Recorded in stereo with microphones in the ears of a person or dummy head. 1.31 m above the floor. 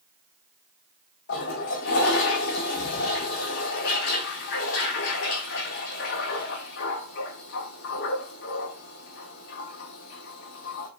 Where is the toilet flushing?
55° left (ahead or behind), 1.5 m.